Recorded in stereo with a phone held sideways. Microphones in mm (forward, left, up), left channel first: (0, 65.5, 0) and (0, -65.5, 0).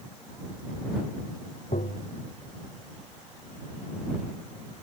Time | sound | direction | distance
1.7 | tapping | 75° left (ahead or behind) | ?